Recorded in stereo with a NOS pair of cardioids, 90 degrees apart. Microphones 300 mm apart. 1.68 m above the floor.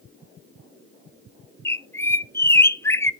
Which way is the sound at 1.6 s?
10° left.